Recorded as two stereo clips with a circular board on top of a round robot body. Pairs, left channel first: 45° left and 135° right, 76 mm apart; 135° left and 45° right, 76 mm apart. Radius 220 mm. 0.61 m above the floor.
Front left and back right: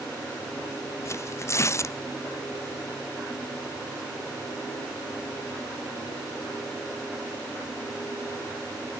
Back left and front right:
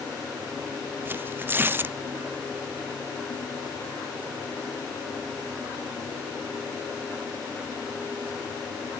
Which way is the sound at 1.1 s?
10° left.